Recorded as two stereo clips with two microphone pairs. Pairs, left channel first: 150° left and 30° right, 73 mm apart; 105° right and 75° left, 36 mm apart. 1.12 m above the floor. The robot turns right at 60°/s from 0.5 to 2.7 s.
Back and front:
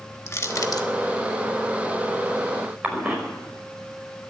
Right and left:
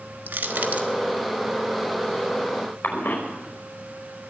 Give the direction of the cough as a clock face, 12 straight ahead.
3 o'clock.